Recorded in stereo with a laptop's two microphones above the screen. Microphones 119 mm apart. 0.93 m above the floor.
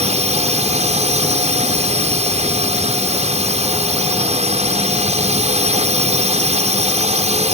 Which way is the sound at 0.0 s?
70° right (ahead or behind).